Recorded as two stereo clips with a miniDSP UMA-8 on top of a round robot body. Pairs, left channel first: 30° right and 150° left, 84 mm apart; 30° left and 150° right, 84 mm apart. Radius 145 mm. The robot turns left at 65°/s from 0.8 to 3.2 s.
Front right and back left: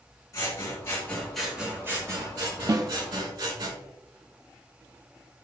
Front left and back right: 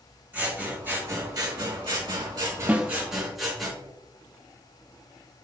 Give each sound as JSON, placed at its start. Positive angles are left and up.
{"t": 0.3, "sound": "scissors", "azimuth_deg": -80, "distance_m": 4.0}
{"t": 2.7, "sound": "a snare drum", "azimuth_deg": 145, "distance_m": 1.1}